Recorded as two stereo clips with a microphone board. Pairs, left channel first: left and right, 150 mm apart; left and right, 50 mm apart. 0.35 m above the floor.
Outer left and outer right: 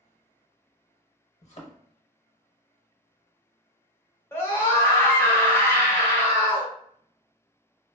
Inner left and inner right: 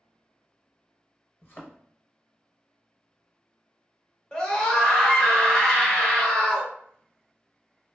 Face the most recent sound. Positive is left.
turn(degrees=15)  # may be behind; listen again after turning